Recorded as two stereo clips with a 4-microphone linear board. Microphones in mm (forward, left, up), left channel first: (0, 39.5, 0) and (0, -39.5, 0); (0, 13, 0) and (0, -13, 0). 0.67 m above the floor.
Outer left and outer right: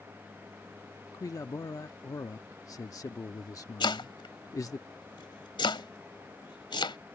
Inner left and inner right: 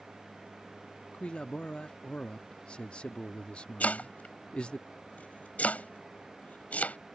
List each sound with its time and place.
1.1 s a man speaking: 45° left (ahead or behind)
3.8 s chopping: 85° left